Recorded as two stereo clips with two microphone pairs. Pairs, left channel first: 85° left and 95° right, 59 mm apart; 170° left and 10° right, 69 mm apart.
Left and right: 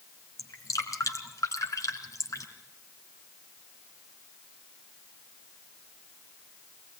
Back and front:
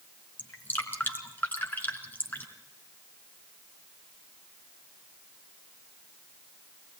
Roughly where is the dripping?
Left.